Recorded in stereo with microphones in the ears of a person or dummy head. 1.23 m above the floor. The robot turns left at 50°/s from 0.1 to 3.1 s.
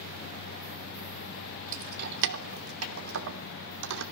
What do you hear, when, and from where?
1.7 s keys jangling: 40° right (ahead or behind), 2.5 m; by 4.0 s 70° right (ahead or behind), 2.5 m